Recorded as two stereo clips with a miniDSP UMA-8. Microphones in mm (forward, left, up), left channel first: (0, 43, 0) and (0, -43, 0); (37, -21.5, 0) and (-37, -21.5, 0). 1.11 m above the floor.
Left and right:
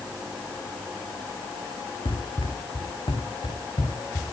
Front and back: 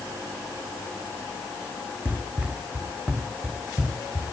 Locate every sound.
2.0 s running footsteps: 105° left, 4.5 m; by 4.3 s 100° left, 7 m